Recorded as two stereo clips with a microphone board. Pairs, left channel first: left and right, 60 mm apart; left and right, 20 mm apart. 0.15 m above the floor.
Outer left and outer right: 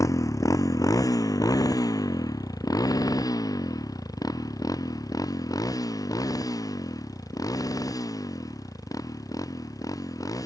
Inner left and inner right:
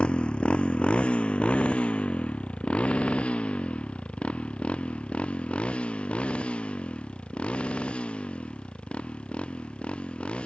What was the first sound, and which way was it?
A motorcycle, 60° left (ahead or behind).